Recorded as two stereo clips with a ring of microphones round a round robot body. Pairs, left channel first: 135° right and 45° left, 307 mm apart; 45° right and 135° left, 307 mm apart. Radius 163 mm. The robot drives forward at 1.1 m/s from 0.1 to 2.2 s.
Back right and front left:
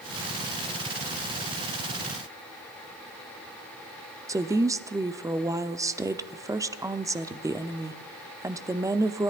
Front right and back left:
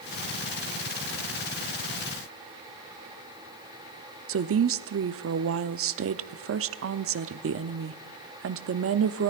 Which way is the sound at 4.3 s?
120° left.